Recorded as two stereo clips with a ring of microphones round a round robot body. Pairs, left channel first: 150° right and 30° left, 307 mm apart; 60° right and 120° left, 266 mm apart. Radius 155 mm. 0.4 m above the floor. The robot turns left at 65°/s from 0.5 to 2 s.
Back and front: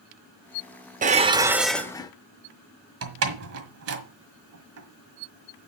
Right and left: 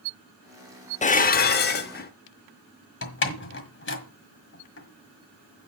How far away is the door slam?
About 1.6 m.